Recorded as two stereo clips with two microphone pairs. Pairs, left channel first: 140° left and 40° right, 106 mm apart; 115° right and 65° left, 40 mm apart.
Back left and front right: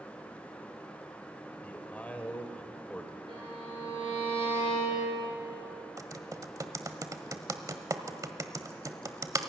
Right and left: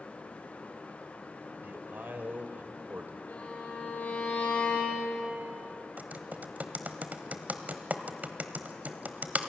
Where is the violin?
80° right, 8.5 m.